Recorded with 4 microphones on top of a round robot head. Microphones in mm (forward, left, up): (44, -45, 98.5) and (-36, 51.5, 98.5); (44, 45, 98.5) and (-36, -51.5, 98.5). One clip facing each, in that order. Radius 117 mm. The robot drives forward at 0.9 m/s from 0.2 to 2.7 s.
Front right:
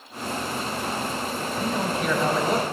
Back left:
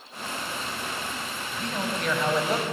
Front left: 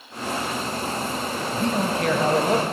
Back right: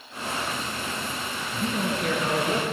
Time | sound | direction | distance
1.5 | a man speaking | 30° left | 4 m